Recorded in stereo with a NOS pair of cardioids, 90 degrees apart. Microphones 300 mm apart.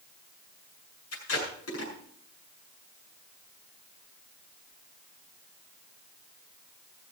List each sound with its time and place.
1.1 s tape being pulled: 50° left, 7.5 m